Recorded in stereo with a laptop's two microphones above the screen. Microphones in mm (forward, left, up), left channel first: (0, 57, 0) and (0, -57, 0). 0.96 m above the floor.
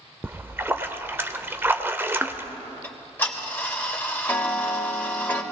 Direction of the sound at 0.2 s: 20° right (ahead or behind).